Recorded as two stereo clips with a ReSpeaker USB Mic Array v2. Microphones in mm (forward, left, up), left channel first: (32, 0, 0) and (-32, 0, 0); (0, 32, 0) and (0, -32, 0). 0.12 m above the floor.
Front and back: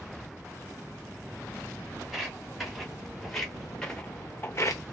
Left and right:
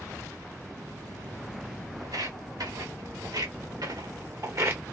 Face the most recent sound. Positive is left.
turn(degrees=-30)